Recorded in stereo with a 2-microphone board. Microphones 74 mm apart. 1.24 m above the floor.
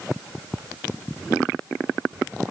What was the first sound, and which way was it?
Only background noise.